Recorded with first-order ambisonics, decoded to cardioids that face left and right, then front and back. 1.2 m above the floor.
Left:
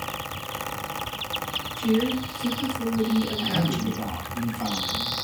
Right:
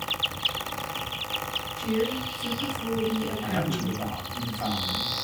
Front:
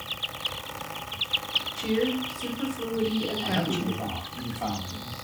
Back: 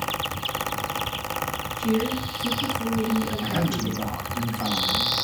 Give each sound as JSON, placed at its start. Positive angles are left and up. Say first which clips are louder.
{"t": 1.8, "sound": "a woman speaking", "louder": "left 3 dB, back 1 dB", "azimuth_deg": 5, "distance_m": 1.2}
{"t": 3.4, "sound": "a man speaking", "louder": "left 3 dB, back 1 dB", "azimuth_deg": 155, "distance_m": 1.1}